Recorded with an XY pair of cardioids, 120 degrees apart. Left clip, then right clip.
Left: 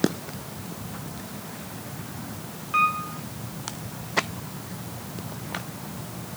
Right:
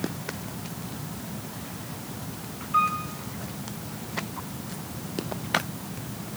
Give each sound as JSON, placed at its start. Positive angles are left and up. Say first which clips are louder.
{"t": 2.7, "sound": "a piano", "louder": "left 1 dB", "azimuth_deg": 55, "distance_m": 4.0}